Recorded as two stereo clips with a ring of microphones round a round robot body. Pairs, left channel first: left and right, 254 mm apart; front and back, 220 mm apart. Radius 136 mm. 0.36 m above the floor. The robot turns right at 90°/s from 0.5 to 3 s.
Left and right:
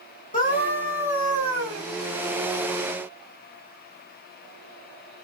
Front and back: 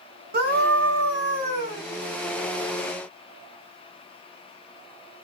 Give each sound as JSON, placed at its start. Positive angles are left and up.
{"t": 0.3, "sound": "a scream", "azimuth_deg": 145, "distance_m": 2.0}